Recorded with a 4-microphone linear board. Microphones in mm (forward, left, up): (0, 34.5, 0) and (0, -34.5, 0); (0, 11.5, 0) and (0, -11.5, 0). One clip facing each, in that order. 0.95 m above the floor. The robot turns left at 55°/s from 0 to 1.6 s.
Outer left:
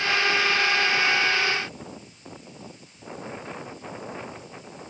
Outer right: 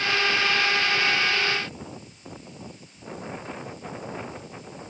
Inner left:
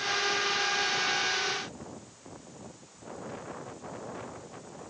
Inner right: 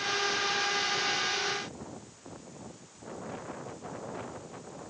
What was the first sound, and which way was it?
Only background noise.